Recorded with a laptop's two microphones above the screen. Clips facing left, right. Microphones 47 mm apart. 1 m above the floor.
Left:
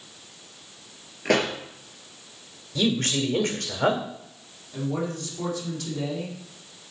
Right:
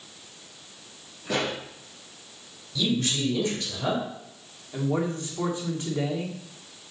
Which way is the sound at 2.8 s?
50° left (ahead or behind).